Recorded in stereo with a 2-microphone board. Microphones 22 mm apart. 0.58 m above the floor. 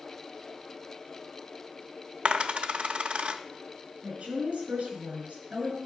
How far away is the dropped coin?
About 0.6 m.